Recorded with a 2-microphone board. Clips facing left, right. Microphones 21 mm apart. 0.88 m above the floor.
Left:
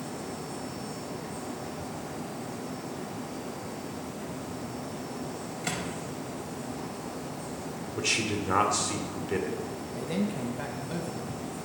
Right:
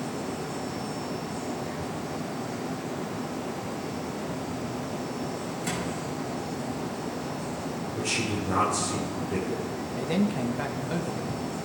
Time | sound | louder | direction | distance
5.6 | a microwave | even | 25° left (ahead or behind) | 4 m
8.0 | a man speaking | left 1 dB | 40° left (ahead or behind) | 3.5 m
9.9 | a man speaking | right 4 dB | 20° right (ahead or behind) | 1.0 m